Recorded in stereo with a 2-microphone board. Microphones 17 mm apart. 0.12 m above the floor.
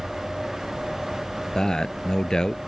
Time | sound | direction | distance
1.6 | a man speaking | 50° left (ahead or behind) | ?